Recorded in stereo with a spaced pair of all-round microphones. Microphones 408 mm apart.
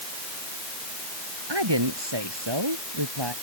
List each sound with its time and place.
1.5 s a woman speaking: 85° right